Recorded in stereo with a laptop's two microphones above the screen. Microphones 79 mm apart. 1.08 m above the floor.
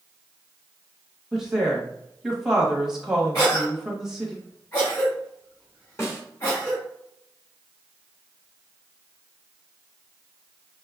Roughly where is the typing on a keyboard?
I don't hear typing on a keyboard.